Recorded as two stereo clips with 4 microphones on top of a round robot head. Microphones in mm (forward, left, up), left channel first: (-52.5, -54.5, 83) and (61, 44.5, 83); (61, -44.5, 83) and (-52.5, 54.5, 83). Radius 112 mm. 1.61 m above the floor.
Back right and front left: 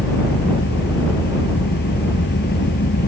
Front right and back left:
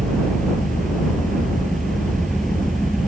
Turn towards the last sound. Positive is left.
turn(degrees=-130)